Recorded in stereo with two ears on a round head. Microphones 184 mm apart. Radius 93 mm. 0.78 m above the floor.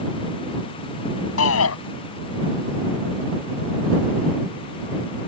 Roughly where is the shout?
Left.